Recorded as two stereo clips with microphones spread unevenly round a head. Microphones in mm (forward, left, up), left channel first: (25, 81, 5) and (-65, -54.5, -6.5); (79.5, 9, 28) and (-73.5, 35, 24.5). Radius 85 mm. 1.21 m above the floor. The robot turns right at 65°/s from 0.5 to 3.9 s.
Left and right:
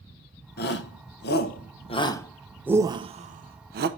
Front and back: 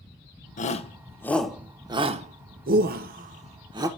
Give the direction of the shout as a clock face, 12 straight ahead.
11 o'clock.